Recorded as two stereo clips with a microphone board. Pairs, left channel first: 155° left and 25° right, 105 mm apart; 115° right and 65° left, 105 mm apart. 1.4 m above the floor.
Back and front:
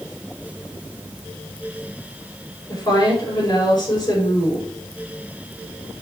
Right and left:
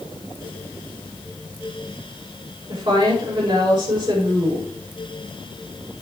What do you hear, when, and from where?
2.7 s a woman speaking: 105° left, 4 m